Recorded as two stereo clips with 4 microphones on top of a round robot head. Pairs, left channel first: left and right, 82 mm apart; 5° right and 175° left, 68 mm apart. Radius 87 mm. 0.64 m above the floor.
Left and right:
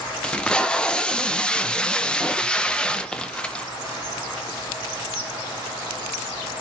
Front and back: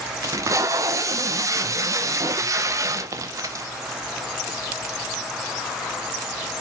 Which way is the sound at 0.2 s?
165° left.